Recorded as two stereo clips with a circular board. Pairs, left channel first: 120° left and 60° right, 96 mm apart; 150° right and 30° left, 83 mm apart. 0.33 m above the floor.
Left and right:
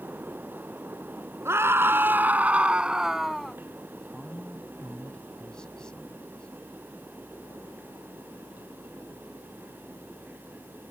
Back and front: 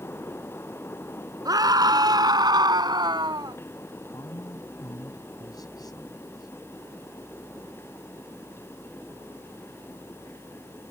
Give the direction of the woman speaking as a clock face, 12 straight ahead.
5 o'clock.